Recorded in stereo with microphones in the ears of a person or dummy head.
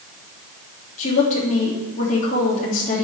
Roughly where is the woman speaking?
Left.